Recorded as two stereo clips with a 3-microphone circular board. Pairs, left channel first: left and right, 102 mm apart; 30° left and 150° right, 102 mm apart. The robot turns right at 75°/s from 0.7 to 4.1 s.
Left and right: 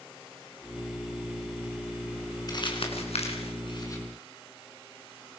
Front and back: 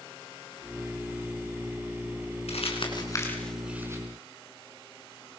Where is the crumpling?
40° left, 6 m; by 4.0 s 155° left, 6 m.